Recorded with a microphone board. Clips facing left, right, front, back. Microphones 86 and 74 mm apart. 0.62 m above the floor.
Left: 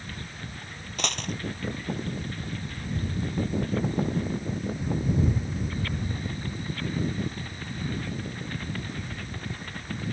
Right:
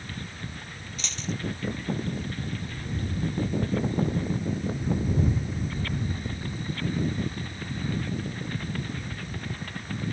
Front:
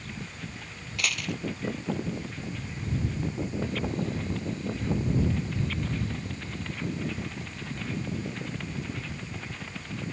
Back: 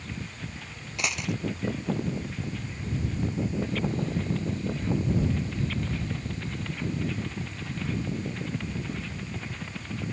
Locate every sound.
1.0 s a dropped coin: 110° left